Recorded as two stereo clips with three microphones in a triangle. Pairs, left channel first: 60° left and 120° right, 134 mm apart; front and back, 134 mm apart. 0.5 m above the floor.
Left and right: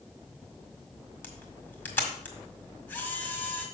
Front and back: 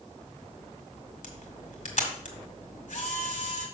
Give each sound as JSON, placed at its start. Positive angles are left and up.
{"t": 1.2, "sound": "a camera shutter", "azimuth_deg": -15, "distance_m": 1.7}